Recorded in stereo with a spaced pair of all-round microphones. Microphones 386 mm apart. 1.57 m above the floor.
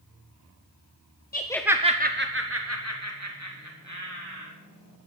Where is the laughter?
25° left (ahead or behind), 0.6 m; by 4.5 s 50° right (ahead or behind), 3.5 m.